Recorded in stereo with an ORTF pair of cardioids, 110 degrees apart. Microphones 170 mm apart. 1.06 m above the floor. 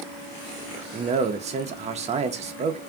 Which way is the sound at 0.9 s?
40° right.